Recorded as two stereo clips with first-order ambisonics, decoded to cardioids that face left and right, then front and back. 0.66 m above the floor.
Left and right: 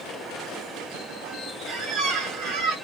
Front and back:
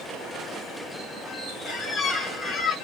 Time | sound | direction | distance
1.7 | a squeak | 80° right | 1.0 m